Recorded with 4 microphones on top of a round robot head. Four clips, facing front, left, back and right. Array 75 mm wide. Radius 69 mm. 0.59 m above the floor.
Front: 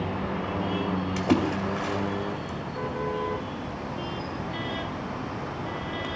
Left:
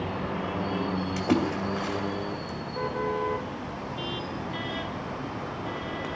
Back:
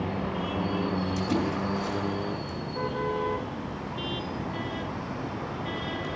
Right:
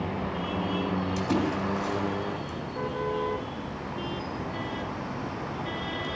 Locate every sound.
1.2 s a splash: 45° left, 2.5 m